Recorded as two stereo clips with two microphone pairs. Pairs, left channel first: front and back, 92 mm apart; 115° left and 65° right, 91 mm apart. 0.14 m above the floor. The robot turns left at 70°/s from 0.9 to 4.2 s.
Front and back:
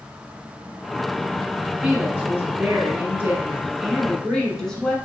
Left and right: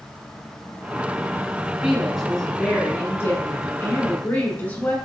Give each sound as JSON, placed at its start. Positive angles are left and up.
{"t": 1.8, "sound": "a woman speaking", "azimuth_deg": -120, "distance_m": 1.4}